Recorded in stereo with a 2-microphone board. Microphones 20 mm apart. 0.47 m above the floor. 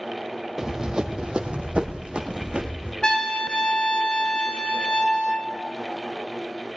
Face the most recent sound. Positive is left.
turn(degrees=45)  # may be behind; listen again after turning